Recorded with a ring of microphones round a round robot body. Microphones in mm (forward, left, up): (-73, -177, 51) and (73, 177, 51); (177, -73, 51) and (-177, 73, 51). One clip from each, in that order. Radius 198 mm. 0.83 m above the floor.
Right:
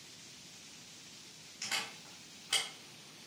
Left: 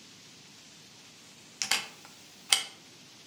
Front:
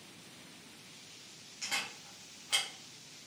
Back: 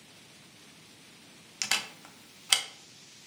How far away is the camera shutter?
About 0.6 m.